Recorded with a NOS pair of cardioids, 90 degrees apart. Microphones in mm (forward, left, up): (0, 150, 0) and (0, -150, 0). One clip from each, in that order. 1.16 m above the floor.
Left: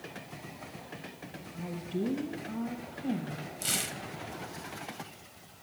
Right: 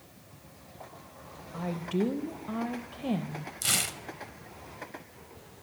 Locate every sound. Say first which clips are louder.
1.5 s a woman speaking: right 5 dB; 50° right, 0.7 m
3.6 s tearing paper: right 4 dB; 20° right, 0.6 m